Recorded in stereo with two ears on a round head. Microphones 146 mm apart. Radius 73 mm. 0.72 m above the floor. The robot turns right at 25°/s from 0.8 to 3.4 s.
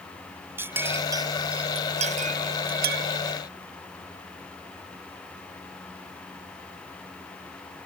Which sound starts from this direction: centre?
A clink, at 0.6 s.